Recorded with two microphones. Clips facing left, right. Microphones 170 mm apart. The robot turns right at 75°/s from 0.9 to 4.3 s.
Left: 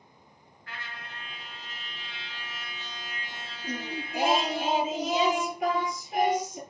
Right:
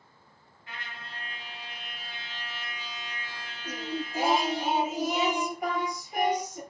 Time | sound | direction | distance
0.7 | a trumpet | 160° right | 2.5 m
3.6 | singing | 35° left | 6.5 m